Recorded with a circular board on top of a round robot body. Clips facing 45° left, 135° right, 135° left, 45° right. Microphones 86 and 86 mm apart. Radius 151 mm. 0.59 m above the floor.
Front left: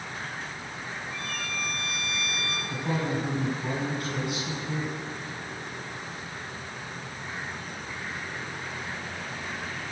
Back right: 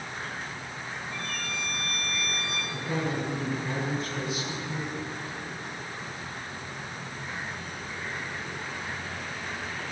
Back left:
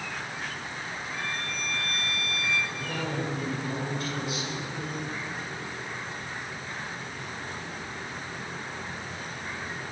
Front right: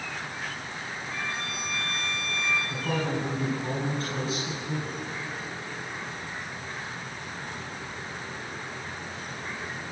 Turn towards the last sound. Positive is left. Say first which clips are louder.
# front left 2 dB, front right 4 dB
turn(degrees=15)